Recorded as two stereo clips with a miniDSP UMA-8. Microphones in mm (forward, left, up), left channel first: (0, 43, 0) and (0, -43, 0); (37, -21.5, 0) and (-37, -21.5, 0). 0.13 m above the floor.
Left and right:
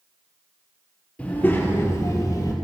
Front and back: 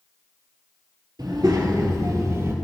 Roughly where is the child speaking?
Behind.